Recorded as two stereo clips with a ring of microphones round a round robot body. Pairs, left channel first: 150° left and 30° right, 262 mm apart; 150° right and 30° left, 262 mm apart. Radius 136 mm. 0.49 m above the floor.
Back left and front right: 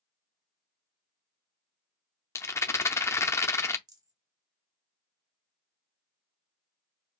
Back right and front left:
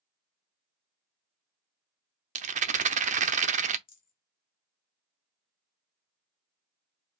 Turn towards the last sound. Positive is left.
turn(degrees=-100)